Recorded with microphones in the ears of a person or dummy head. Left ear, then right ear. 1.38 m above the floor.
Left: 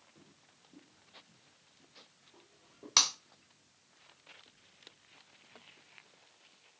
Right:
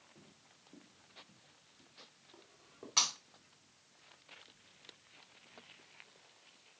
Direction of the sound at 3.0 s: 50° left (ahead or behind).